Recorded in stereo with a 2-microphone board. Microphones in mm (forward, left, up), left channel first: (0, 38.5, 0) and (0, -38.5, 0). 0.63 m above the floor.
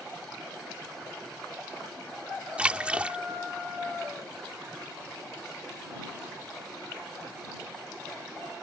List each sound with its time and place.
2.6 s a splash: 15° right (ahead or behind)